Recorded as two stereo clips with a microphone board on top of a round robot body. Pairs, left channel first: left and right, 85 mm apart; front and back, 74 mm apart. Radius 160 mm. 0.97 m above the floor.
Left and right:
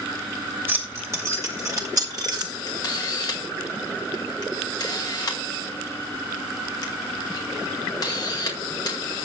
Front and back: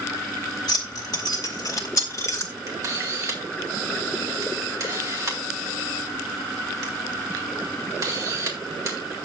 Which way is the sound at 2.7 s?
135° left.